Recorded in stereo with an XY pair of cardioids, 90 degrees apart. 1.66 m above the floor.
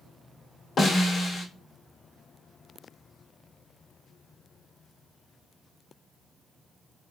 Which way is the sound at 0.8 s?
55° left.